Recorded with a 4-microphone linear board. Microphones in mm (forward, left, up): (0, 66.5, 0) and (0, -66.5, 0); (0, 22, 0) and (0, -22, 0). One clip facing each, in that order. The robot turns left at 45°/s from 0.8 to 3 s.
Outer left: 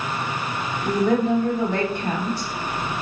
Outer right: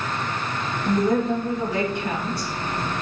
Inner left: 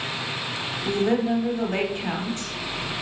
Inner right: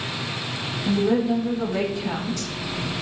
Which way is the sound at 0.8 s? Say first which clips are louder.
Outer left 1 dB, inner right 2 dB; 105° left.